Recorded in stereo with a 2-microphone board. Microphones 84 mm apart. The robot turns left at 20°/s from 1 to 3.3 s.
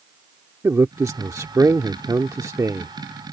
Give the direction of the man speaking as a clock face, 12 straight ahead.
2 o'clock.